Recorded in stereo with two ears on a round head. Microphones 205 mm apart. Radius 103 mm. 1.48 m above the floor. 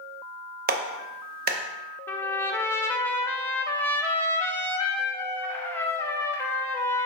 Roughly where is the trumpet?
Centre.